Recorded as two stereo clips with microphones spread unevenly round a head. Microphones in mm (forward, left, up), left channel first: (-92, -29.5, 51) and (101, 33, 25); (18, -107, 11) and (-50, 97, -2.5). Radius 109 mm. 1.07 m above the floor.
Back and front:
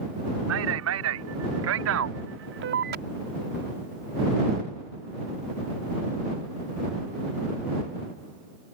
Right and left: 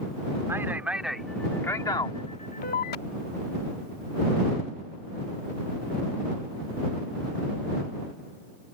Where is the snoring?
I don't hear snoring.